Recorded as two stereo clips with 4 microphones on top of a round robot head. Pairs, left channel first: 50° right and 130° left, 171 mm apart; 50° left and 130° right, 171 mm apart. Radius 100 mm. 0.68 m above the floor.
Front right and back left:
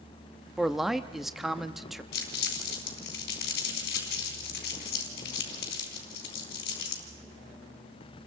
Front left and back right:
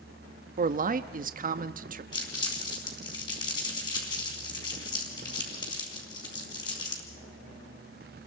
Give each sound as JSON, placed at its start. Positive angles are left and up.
{"t": 0.6, "sound": "a man speaking", "azimuth_deg": -140, "distance_m": 0.8}
{"t": 2.1, "sound": "crumpling", "azimuth_deg": -15, "distance_m": 4.0}